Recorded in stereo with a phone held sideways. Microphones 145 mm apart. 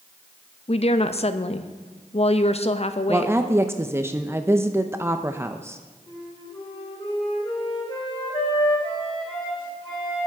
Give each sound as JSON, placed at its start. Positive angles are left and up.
{"t": 0.7, "sound": "a woman speaking", "side_deg": 45, "distance_m": 0.6}
{"t": 3.1, "sound": "a woman speaking", "side_deg": -15, "distance_m": 0.5}
{"t": 6.1, "sound": "a flute", "side_deg": 35, "distance_m": 3.5}